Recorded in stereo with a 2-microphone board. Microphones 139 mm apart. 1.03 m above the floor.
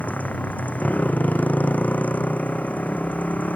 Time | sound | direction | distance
0.0 | a motorcycle | 10° left (ahead or behind) | ?